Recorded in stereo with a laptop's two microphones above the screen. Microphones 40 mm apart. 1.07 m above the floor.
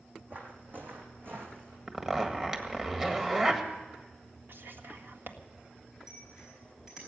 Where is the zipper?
20° right (ahead or behind), 1.7 m.